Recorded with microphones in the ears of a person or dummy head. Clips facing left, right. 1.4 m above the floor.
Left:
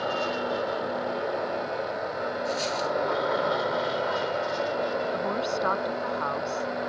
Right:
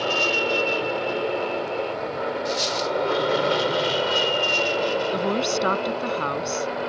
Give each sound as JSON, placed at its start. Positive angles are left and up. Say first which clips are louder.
{"t": 0.0, "sound": "an aircraft", "louder": "right 4 dB", "side_deg": -45}
{"t": 2.5, "sound": "a dropped coin", "louder": "right 3 dB", "side_deg": -15}
{"t": 5.1, "sound": "a woman speaking", "louder": "right 5 dB", "side_deg": -45}